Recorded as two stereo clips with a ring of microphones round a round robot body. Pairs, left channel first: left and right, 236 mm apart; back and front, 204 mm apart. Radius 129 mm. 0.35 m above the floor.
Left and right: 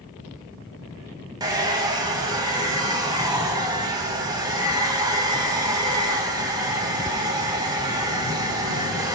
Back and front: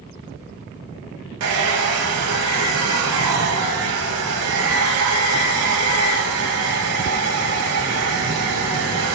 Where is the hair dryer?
15° right, 0.5 m.